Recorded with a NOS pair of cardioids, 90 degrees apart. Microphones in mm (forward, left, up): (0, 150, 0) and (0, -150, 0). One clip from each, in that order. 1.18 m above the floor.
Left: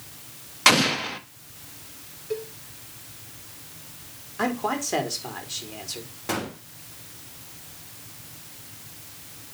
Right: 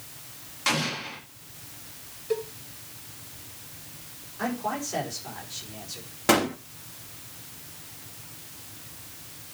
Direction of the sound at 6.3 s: 60° right.